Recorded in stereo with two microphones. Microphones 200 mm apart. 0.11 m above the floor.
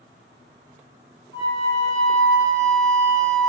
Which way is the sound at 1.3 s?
20° left (ahead or behind).